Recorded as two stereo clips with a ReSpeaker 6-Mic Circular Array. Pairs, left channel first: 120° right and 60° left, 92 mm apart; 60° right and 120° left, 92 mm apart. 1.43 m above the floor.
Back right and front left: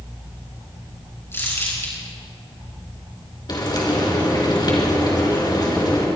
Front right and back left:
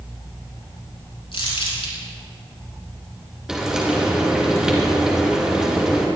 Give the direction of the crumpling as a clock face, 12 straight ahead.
2 o'clock.